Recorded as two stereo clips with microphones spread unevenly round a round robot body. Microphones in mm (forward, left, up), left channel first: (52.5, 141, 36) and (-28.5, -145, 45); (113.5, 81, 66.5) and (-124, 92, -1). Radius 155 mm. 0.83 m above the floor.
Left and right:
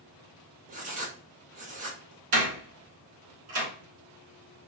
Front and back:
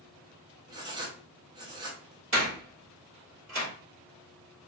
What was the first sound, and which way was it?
Writing, 155° right.